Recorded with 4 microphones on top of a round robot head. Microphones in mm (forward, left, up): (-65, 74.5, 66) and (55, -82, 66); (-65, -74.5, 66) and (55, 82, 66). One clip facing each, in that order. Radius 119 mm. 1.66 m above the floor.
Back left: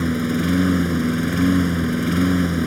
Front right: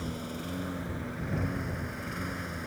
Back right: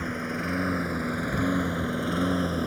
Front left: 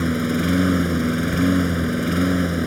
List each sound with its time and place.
0.0 s a lawn mower: 100° left; by 2.7 s 125° left